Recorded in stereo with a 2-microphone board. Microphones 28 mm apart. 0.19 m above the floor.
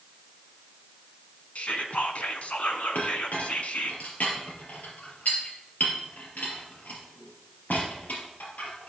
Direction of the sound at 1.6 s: 50° left (ahead or behind).